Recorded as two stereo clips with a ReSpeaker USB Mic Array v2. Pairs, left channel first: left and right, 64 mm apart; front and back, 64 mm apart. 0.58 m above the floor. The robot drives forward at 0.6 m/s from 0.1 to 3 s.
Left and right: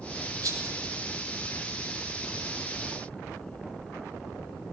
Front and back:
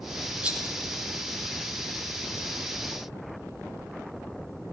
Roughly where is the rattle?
Right.